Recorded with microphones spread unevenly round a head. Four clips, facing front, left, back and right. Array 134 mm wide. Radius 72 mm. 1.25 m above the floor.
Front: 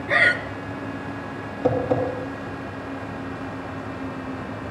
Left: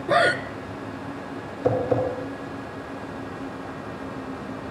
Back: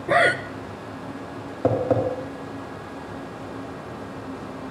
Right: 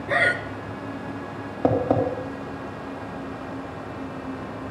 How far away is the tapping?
About 3.5 m.